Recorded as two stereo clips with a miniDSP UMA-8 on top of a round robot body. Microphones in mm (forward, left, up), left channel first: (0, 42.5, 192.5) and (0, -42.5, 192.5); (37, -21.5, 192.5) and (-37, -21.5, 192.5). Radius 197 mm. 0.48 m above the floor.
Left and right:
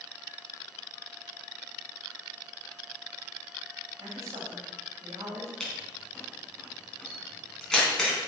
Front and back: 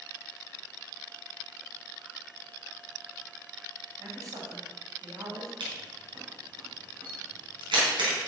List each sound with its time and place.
4.0 s a man speaking: 140° right, 3.5 m
5.6 s a camera shutter: 175° left, 3.5 m